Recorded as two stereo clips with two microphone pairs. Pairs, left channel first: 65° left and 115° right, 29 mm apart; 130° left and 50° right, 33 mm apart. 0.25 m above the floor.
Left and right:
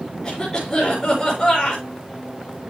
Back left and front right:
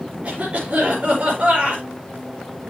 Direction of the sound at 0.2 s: Straight ahead.